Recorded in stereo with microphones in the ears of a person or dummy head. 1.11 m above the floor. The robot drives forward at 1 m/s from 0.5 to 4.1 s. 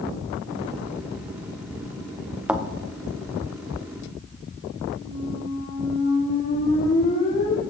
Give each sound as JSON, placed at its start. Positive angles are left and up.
{"t": 2.5, "sound": "a thud", "side_deg": -5, "distance_m": 0.6}
{"t": 5.0, "sound": "a squeak", "side_deg": 40, "distance_m": 3.0}